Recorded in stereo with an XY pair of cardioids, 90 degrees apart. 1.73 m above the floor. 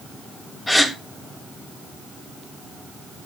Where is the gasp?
20° left, 2.5 m.